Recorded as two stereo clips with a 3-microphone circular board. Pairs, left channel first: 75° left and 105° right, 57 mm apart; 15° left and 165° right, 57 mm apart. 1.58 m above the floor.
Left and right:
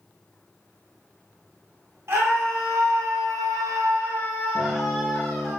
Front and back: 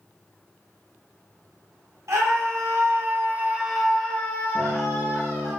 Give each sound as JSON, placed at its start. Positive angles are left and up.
{"t": 2.1, "sound": "a scream", "azimuth_deg": -140, "distance_m": 1.1}
{"t": 4.5, "sound": "a guitar", "azimuth_deg": -100, "distance_m": 0.8}